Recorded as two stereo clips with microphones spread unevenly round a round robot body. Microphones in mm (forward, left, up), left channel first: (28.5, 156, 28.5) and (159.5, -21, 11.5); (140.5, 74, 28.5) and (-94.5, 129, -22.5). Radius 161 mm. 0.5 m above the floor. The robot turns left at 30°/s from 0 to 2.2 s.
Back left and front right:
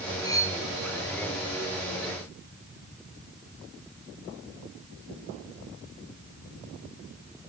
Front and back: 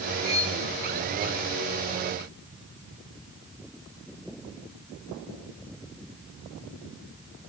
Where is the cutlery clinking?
55° left, 3 m; by 0.6 s 45° left, 3 m.